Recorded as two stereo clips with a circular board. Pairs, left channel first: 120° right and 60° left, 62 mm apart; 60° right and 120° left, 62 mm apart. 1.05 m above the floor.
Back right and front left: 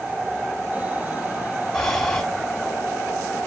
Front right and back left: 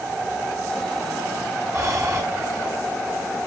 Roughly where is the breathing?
Behind left.